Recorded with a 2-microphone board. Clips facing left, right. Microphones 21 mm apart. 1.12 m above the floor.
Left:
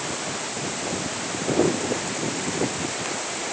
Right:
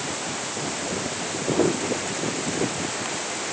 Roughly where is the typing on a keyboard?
I don't hear typing on a keyboard.